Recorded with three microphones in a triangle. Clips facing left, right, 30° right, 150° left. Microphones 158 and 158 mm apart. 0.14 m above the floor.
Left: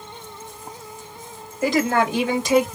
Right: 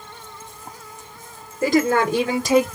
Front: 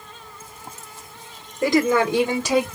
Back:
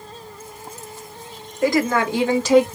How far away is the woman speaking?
About 2.5 m.